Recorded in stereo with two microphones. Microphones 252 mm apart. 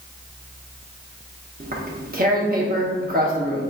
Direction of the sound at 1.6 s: 40° right (ahead or behind).